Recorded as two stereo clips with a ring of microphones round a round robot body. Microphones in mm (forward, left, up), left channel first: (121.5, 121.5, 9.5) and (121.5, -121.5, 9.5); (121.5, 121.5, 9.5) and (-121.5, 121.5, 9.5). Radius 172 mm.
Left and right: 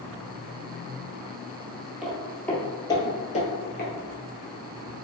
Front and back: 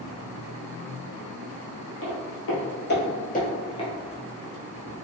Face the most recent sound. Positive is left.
turn(degrees=65)